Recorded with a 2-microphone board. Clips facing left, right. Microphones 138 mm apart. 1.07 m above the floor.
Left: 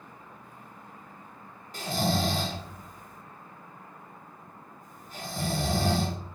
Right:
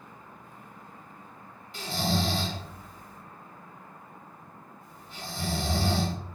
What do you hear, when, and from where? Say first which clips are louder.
1.7 s snoring: left 1 dB; 45° left (ahead or behind), 0.9 m